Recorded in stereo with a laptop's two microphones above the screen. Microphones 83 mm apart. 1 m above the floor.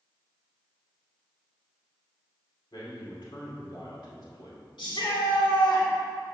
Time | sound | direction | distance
2.7 | a man speaking | 65° left (ahead or behind) | 2.5 m
4.8 | a shout | 75° left (ahead or behind) | 2.5 m